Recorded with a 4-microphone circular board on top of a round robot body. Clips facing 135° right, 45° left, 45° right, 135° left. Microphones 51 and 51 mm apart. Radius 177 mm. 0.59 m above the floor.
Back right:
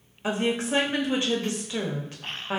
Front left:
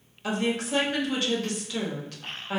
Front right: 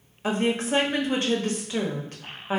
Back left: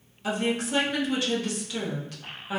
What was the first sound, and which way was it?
A woman speaking, 80° right.